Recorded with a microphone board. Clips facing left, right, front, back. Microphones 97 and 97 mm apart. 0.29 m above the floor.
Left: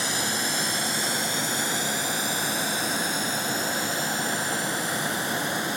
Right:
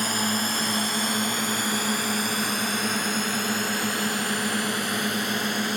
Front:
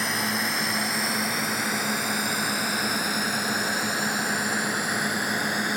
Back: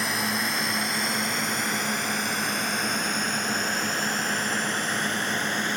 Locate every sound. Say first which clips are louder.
0.0 s a drone: right 2 dB, even; 90° right; by 5.8 s 80° right